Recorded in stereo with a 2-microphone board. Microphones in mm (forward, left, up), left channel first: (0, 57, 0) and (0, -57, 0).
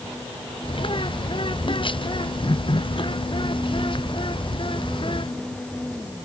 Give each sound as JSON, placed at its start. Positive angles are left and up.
{"t": 0.6, "sound": "a bird", "side_deg": 45}